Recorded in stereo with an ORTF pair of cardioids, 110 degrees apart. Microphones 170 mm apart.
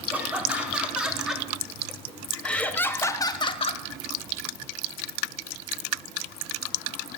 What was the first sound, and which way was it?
Laughter, 10° right.